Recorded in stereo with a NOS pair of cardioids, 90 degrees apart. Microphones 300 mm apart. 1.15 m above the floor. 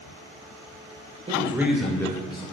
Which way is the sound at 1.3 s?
20° right.